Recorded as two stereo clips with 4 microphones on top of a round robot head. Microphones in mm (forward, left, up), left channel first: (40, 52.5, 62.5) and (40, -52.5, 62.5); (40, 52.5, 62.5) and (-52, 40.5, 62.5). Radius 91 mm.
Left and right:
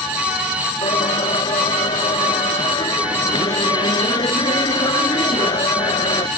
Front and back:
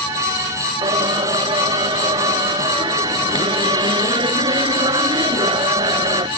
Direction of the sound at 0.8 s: 150° left.